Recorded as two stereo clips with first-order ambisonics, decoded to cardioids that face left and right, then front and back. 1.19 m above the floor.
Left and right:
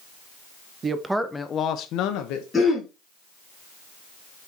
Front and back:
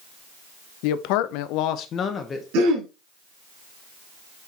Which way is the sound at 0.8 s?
20° right.